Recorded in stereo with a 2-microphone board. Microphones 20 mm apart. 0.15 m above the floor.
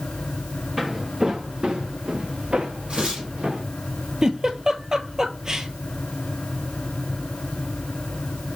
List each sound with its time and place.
0.8 s footsteps: 20° right (ahead or behind), 1.2 m; by 3.6 s 80° right, 1.9 m
2.9 s tearing paper: 75° right (ahead or behind), 3 m
4.2 s a giggle: 35° right (ahead or behind), 0.7 m